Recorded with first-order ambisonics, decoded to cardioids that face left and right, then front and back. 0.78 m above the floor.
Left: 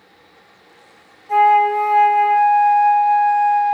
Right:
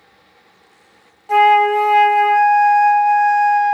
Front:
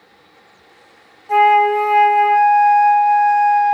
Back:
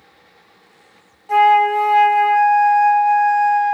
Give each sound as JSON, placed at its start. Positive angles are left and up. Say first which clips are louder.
{"t": 1.3, "sound": "a flute", "louder": "right 1 dB, front 1 dB", "azimuth_deg": -95, "distance_m": 0.7}